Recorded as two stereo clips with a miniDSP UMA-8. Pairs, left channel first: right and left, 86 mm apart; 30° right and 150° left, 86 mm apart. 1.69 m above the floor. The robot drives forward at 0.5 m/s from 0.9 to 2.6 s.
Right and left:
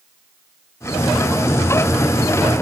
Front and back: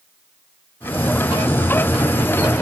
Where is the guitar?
No guitar in this recording.